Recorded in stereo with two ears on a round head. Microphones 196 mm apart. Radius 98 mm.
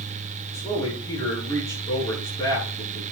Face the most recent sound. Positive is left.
turn(degrees=15)  # may be behind; listen again after turning